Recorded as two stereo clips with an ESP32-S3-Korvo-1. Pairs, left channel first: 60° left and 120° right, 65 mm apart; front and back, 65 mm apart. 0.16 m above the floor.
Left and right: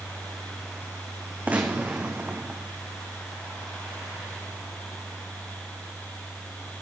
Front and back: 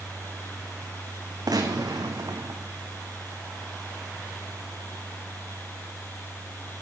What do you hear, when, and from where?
1.5 s a gunshot: 175° left, 2 m